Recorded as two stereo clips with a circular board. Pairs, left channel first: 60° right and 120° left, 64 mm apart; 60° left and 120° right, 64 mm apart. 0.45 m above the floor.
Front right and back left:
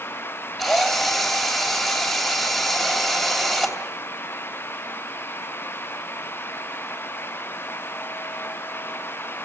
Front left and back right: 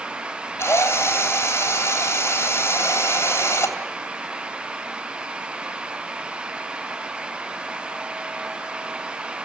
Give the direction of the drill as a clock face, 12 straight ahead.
11 o'clock.